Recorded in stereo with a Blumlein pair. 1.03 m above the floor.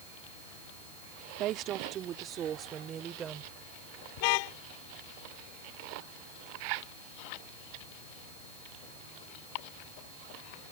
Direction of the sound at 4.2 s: 45° left.